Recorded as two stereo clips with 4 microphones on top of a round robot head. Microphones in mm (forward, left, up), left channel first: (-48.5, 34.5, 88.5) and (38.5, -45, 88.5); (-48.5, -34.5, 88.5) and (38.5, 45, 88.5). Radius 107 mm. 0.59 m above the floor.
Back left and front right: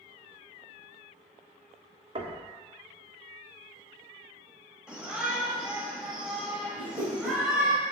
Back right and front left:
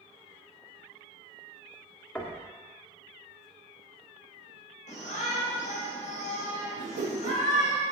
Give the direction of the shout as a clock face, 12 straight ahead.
4 o'clock.